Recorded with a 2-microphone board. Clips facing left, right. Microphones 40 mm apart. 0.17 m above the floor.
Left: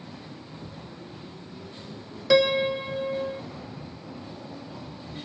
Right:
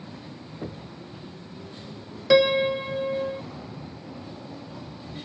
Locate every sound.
0.6 s knocking: 80° right
2.3 s a piano: 5° right (ahead or behind)